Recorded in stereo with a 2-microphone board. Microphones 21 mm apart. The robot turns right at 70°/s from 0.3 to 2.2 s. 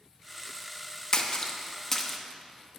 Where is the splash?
40° left (ahead or behind), 0.6 m; by 2.2 s 10° left (ahead or behind), 0.6 m.